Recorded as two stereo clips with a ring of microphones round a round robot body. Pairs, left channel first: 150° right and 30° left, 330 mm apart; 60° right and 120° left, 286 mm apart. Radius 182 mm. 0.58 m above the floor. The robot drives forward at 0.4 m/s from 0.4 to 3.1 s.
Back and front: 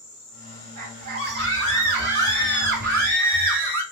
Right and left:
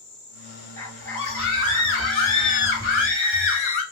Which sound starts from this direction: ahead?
A scream, at 0.8 s.